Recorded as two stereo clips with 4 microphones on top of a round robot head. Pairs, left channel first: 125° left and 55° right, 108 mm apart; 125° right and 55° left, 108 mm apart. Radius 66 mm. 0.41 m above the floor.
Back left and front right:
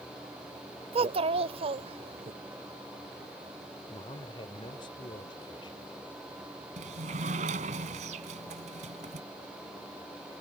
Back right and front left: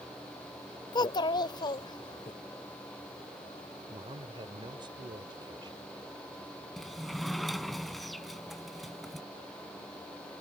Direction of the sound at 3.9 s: 90° left.